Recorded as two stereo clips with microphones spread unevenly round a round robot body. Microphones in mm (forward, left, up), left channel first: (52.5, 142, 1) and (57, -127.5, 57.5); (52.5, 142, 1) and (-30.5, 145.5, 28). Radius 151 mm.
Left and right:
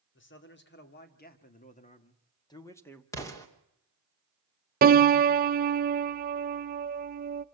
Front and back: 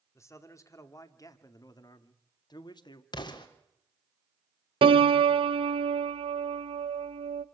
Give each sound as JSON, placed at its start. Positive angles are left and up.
{"t": 0.1, "sound": "a man speaking", "azimuth_deg": 50, "distance_m": 3.0}
{"t": 3.1, "sound": "an explosion", "azimuth_deg": 15, "distance_m": 3.0}
{"t": 4.8, "sound": "a piano", "azimuth_deg": -150, "distance_m": 0.5}